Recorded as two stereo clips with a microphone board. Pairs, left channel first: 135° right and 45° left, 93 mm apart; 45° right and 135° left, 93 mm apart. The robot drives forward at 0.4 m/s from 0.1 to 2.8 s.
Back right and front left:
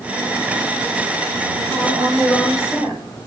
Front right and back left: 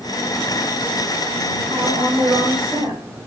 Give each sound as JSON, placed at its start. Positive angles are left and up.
{"t": 1.6, "sound": "a woman speaking", "azimuth_deg": 160, "distance_m": 2.5}